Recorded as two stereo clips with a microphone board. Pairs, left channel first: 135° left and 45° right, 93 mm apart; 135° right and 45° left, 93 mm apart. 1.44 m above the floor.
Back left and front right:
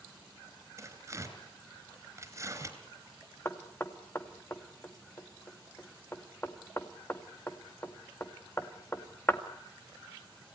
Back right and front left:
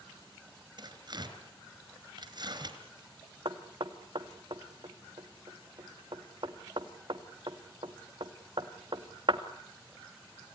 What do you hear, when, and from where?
0.8 s tearing paper: 10° left, 3.5 m
3.5 s knocking: 70° left, 1.9 m